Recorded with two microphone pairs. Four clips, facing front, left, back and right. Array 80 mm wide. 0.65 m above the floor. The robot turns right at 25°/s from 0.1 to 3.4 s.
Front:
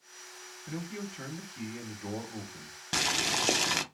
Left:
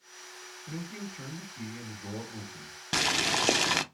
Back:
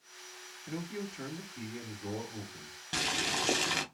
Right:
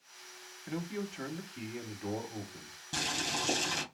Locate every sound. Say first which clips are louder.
0.7 s a man speaking: right 3 dB, even; 85° right, 1.2 m; by 2.8 s 30° right, 1.2 m
2.9 s boiling: left 7 dB, front 2 dB; 80° left, 0.5 m; by 3.8 s 90° left, 0.5 m